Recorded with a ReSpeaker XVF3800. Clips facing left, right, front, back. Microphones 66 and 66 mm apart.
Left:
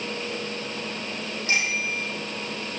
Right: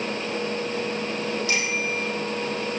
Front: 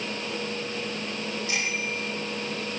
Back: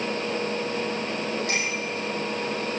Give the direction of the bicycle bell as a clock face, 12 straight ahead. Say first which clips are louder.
Right 1 dB, back 2 dB; 7 o'clock.